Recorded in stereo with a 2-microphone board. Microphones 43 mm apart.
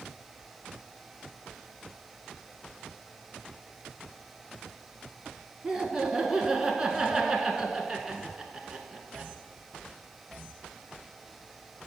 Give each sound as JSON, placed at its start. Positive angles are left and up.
{"t": 5.6, "sound": "laughter", "side_deg": -15, "distance_m": 1.2}